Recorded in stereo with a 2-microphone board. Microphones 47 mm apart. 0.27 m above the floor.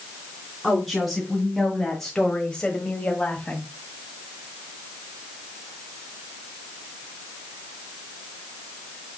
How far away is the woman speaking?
About 3 m.